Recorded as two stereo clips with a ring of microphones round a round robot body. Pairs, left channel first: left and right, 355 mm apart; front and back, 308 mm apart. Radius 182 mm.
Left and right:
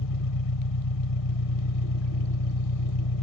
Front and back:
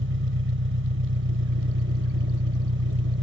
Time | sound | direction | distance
0.0 | an engine running | 130° left | ?